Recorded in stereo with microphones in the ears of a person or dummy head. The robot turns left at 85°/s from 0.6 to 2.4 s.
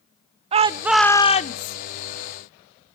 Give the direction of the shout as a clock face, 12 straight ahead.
5 o'clock.